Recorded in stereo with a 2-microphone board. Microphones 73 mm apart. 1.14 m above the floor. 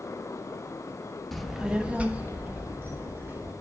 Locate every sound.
1.3 s a child speaking: 5° left (ahead or behind), 0.5 m; by 3.5 s 30° right (ahead or behind), 2 m